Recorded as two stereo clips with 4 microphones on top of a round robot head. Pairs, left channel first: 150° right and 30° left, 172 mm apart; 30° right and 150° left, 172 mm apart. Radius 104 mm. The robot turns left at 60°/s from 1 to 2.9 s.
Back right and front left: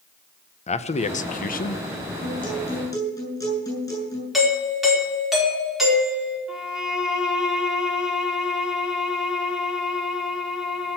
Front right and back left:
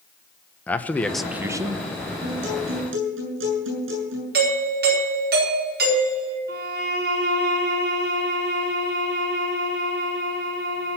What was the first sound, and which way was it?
A man speaking, 110° right.